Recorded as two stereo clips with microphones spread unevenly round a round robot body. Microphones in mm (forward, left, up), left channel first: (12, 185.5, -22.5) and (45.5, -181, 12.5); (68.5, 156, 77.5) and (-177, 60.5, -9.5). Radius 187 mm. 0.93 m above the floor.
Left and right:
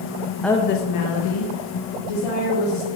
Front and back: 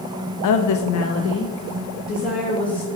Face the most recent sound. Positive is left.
turn(degrees=85)